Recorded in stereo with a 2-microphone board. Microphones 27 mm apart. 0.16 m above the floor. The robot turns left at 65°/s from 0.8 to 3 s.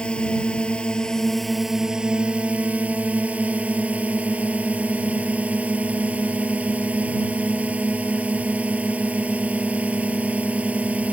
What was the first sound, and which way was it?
A drone, 45° left.